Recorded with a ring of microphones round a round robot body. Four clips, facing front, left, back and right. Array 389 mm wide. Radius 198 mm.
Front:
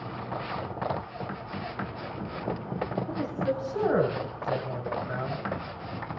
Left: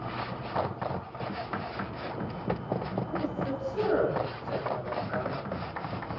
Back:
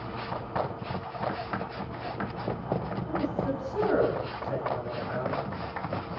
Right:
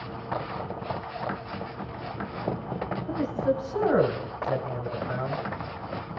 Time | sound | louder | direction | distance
3.1 | a man speaking | right 9 dB, back 3 dB | 60° right | 6 m